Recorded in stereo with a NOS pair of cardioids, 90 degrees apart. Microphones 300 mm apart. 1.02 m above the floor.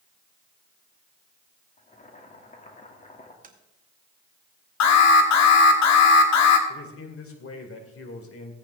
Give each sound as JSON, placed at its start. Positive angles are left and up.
{"t": 1.8, "sound": "boiling", "azimuth_deg": 25, "distance_m": 2.0}
{"t": 3.4, "sound": "tapping", "azimuth_deg": -25, "distance_m": 1.8}
{"t": 4.8, "sound": "an alarm", "azimuth_deg": 70, "distance_m": 2.0}
{"t": 6.7, "sound": "a man speaking", "azimuth_deg": 50, "distance_m": 3.0}